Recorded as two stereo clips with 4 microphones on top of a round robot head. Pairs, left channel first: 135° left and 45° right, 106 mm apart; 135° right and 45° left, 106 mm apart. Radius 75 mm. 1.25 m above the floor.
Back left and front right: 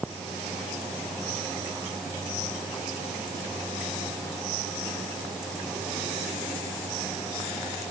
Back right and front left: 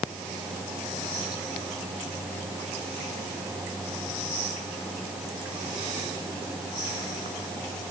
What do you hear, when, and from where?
Only background noise.